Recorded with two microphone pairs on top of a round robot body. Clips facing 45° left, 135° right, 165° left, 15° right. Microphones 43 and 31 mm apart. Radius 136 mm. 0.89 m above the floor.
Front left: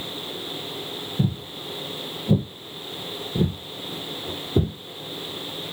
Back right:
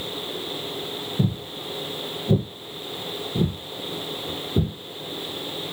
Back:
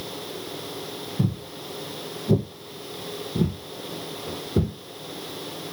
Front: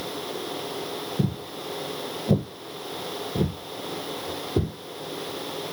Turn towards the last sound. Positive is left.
turn(degrees=75)